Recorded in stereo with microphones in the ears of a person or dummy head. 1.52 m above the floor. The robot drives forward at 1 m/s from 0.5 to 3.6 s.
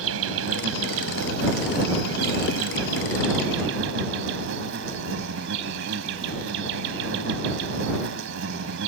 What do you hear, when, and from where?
0.0 s an insect: 80° right; by 8.9 s 70° right (ahead or behind)